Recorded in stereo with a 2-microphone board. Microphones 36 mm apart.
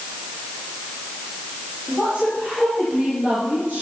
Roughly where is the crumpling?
I don't hear crumpling.